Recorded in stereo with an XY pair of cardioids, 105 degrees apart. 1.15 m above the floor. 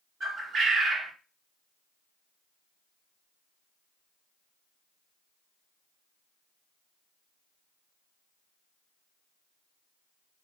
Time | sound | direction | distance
0.2 | a bird | 50° right | 1.4 m